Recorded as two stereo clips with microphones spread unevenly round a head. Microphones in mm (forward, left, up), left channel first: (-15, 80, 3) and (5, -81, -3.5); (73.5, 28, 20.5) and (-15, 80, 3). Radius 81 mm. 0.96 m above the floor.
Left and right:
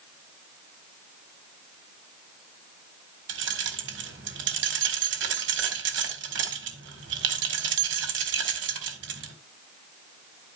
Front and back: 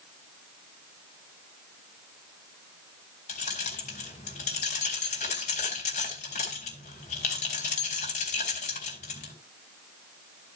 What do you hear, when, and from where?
3.3 s keys jangling: 65° right, 1.9 m